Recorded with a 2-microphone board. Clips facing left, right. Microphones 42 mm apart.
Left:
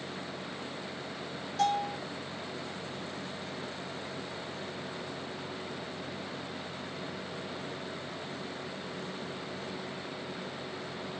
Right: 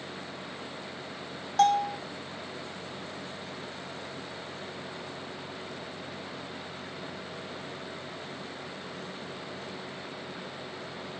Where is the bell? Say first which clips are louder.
Right 6 dB; 65° right (ahead or behind), 3.5 m.